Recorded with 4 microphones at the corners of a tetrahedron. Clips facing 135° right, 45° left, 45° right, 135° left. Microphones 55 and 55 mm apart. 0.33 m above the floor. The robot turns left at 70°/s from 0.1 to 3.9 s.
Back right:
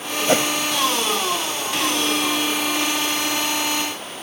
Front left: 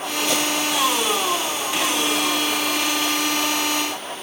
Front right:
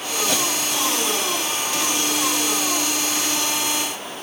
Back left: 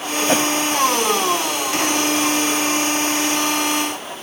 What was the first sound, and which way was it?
A whoosh, 175° right.